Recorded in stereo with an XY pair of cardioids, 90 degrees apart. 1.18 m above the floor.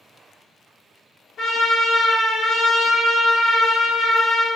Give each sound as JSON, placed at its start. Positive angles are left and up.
{"t": 1.4, "sound": "a trumpet", "azimuth_deg": 70, "distance_m": 1.1}